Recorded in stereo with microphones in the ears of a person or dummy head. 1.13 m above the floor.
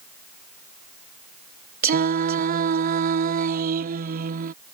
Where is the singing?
45° right (ahead or behind).